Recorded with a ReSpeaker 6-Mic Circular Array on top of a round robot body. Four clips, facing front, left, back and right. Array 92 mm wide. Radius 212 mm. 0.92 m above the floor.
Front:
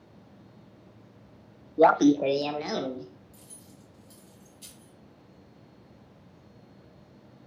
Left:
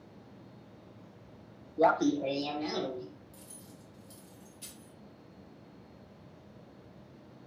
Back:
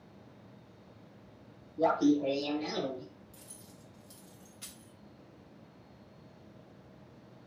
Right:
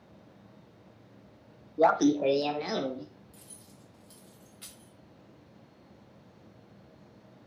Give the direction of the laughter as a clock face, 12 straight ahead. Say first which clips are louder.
Right 3 dB, front 7 dB; 12 o'clock.